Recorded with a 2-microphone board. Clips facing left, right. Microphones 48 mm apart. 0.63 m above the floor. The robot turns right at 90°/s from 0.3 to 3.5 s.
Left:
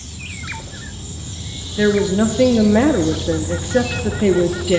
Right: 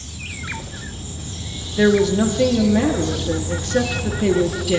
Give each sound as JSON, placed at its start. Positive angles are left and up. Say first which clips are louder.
{"t": 1.8, "sound": "a woman speaking", "louder": "even", "azimuth_deg": -10, "distance_m": 0.8}